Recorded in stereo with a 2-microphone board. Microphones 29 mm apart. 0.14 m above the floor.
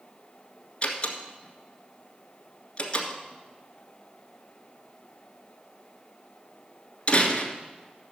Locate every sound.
0.8 s a door slam: 40° left (ahead or behind), 1.4 m